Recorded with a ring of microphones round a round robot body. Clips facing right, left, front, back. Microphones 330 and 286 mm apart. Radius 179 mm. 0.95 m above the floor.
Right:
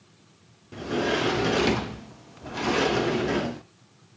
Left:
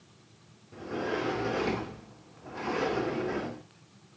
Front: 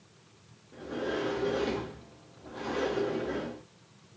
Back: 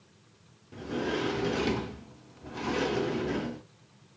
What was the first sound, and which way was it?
A sliding door, 125° right.